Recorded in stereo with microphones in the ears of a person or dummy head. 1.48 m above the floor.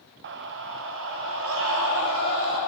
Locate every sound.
0.2 s a scream: 55° right (ahead or behind), 1.2 m; by 2.6 s 65° right (ahead or behind), 4.5 m